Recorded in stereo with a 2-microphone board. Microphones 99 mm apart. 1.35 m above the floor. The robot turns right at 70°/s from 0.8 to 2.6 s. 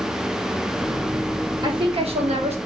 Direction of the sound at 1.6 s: 140° right.